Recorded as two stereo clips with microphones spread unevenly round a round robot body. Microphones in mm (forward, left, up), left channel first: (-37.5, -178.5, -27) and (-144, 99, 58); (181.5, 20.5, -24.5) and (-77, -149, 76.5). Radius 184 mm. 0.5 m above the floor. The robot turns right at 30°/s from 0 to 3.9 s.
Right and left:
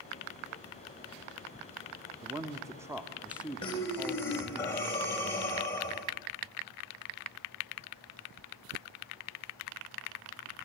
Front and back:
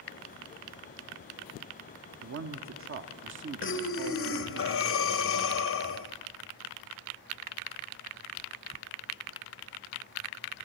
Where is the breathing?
5° right, 2 m; by 6.1 s 5° left, 2 m.